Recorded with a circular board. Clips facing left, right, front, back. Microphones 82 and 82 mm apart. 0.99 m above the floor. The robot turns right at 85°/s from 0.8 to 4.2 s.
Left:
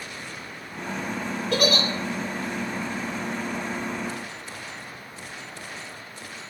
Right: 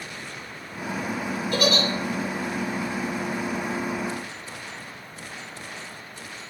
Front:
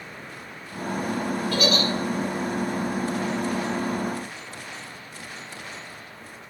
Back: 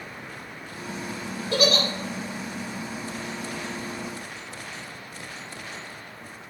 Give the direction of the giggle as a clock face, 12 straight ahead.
8 o'clock.